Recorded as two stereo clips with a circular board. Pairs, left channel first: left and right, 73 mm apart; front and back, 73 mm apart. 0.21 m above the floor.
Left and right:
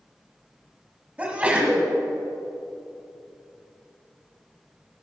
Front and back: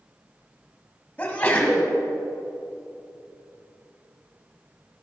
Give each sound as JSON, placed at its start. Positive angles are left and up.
{"t": 1.2, "sound": "a sneeze", "azimuth_deg": -40, "distance_m": 1.6}